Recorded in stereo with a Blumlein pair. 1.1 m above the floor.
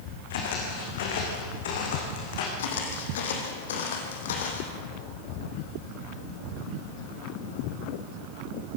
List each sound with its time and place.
0.3 s footsteps: 55° left, 4.5 m
2.6 s footsteps: 60° left, 3.5 m